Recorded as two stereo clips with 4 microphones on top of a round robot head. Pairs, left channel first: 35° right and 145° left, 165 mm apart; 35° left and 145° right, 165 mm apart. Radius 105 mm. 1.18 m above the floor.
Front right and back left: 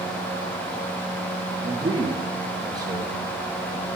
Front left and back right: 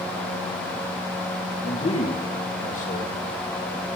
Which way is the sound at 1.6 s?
75° left.